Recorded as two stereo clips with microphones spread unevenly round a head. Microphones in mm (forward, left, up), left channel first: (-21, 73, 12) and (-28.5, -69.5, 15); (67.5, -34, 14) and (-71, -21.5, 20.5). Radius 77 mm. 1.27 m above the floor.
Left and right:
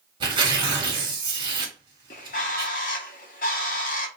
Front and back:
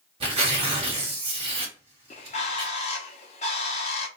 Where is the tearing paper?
145° right, 1.3 m.